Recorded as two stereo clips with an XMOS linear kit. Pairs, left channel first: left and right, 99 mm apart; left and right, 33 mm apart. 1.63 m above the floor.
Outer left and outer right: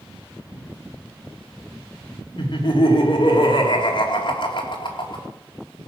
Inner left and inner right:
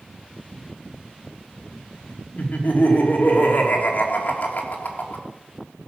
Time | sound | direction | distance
2.4 | laughter | 50° left (ahead or behind) | 3 m